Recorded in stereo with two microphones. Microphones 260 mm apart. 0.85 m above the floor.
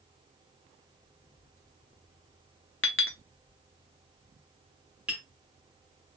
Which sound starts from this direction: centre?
Tapping, at 5.1 s.